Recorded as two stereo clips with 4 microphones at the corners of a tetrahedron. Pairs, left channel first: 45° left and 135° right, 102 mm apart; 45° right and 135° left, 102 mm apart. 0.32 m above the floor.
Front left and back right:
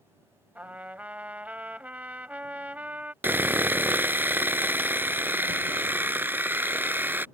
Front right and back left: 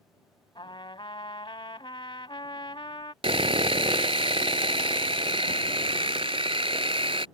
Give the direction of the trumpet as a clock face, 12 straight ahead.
2 o'clock.